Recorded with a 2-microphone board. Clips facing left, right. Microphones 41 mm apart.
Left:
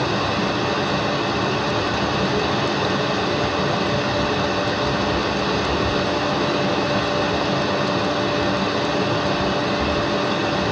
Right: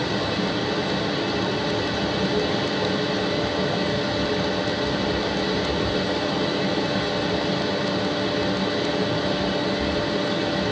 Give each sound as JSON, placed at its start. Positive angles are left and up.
{"t": 0.0, "sound": "running water", "side_deg": 60, "distance_m": 1.3}